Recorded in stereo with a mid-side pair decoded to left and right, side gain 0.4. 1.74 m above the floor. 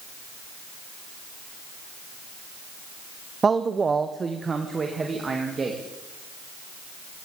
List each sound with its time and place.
3.4 s a man speaking: 35° right, 0.7 m; by 5.8 s 40° right, 3 m